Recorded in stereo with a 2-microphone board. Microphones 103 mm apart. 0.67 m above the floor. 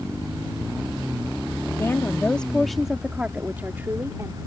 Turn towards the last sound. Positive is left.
turn(degrees=-30)  # may be behind; listen again after turning